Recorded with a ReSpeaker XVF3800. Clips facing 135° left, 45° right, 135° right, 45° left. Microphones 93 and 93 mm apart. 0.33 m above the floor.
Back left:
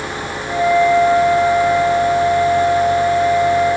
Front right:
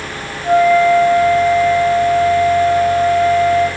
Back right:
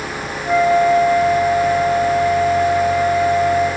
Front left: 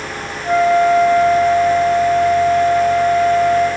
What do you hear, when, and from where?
0.4 s a flute: 25° right, 3.5 m